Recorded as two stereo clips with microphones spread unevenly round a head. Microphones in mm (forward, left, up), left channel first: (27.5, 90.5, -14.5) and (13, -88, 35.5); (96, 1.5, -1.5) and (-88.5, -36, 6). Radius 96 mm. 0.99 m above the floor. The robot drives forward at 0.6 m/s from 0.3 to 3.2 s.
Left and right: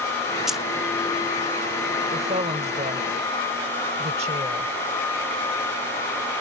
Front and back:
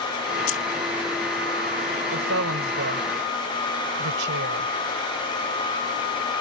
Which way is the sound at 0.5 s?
5° right.